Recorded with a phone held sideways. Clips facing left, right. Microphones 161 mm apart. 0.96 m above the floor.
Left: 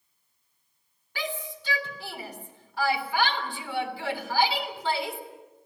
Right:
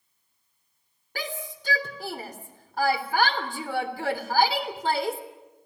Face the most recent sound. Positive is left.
turn(degrees=-45)  # may be behind; listen again after turning